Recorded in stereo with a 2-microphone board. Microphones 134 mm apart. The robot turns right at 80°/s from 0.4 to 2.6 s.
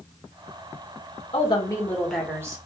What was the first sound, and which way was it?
A woman speaking, 115° left.